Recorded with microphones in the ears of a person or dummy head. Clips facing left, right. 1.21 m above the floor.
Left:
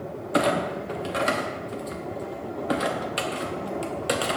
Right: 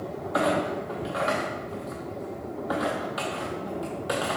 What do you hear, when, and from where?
0.3 s a clunk: 35° left (ahead or behind), 0.8 m